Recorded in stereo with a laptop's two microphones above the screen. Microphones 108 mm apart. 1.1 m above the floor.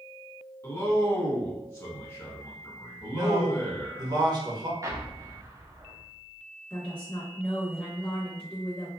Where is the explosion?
30° right (ahead or behind), 0.5 m.